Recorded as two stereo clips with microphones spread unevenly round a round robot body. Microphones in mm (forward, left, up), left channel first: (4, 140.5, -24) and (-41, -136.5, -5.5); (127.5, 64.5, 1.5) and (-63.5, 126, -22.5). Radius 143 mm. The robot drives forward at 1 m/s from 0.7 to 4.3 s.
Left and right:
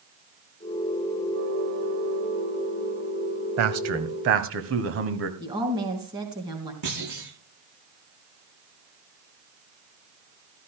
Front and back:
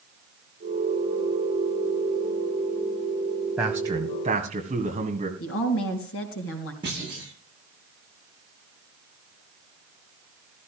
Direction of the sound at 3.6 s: 115° right.